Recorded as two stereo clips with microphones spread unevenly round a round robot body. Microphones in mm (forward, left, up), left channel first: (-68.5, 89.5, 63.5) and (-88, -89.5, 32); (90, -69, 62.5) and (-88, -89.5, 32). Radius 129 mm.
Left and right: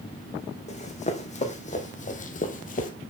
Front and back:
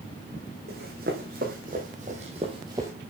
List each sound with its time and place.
0.7 s running footsteps: 130° left, 2.5 m; by 2.9 s 100° left, 1.1 m